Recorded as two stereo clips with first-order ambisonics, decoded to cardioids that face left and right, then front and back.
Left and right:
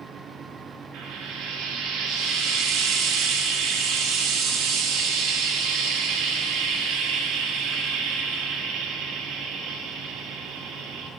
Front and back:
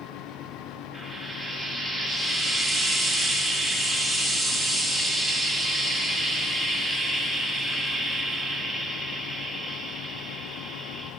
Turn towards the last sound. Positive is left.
turn(degrees=-85)